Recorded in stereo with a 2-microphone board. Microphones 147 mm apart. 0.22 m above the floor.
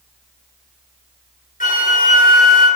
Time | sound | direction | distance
1.6 | a flute | 65° left (ahead or behind) | 3.5 m